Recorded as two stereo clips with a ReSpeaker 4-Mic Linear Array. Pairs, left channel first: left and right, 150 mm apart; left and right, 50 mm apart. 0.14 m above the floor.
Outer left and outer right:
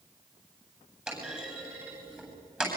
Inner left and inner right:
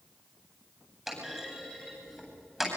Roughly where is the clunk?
Centre.